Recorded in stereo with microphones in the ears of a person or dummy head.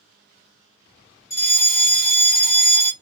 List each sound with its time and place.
1.3 s a fire alarm: 15° left (ahead or behind), 1.2 m